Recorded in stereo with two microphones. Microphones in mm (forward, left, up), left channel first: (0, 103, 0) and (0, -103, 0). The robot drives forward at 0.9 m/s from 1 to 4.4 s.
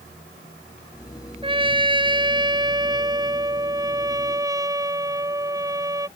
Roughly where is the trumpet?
Right.